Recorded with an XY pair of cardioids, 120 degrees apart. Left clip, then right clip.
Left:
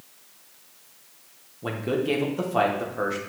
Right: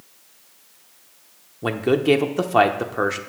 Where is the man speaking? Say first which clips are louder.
Right 7 dB; 45° right, 1.0 m.